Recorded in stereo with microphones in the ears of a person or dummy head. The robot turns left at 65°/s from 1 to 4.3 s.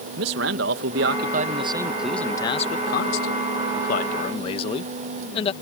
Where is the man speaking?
110° right; by 5.5 s 35° left.